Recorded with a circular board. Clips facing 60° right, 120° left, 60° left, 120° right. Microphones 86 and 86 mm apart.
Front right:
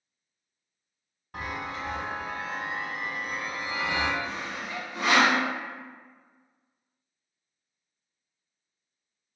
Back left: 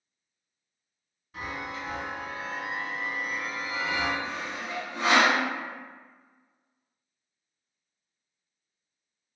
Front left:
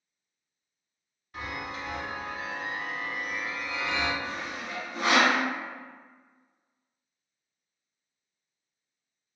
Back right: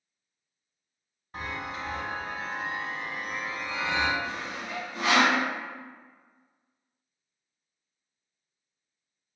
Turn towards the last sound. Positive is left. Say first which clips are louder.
# even, even
turn(degrees=90)